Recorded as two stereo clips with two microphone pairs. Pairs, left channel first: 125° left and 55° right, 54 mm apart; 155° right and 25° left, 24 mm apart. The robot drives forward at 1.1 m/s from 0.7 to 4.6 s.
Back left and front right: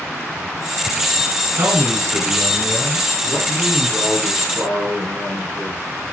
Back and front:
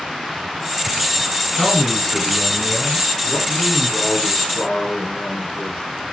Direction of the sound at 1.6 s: 80° right.